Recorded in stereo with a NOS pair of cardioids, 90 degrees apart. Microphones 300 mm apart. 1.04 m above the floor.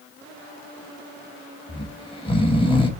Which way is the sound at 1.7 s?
20° left.